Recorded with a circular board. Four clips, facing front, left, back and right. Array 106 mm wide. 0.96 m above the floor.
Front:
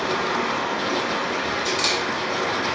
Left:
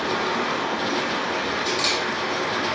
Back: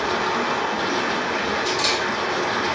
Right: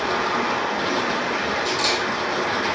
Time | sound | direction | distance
0.0 | running water | 125° right | 0.7 m
1.6 | a camera shutter | straight ahead | 1.6 m